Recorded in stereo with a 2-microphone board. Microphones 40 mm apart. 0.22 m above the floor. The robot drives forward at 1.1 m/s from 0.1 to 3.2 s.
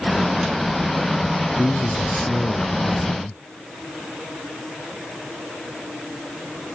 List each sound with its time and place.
1.6 s a man speaking: 40° left (ahead or behind); by 3.4 s 60° left (ahead or behind)